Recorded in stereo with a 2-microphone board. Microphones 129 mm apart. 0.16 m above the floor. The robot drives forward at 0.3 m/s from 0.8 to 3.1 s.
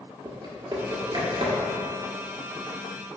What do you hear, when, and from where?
0.2 s typing on a keyboard: 35° right (ahead or behind), 1.1 m; by 1.7 s 45° right (ahead or behind), 0.9 m